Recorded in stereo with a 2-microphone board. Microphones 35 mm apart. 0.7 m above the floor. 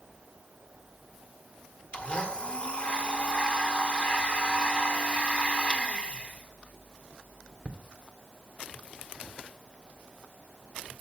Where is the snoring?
No snoring in this recording.